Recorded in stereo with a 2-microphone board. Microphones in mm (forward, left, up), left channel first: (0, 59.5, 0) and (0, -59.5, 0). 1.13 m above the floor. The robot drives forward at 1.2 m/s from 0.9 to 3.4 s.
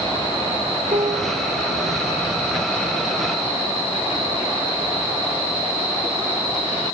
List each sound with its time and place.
0.9 s a piano: 80° right, 2 m; by 2.1 s 60° right (ahead or behind), 2.5 m